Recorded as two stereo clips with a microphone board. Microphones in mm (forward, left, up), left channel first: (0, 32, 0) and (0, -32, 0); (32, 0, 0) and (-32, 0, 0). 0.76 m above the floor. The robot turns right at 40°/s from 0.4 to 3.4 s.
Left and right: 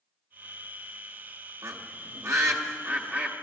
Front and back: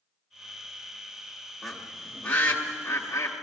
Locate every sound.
1.6 s a bird: 90° right, 1.3 m; by 3.3 s 25° right, 1.3 m